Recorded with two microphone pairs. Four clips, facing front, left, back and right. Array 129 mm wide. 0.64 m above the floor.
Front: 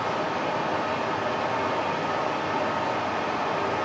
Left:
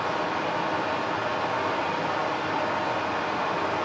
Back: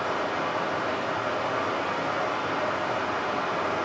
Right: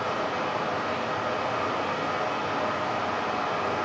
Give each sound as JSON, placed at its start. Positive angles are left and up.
{"t": 0.0, "sound": "running water", "azimuth_deg": 30, "distance_m": 6.0}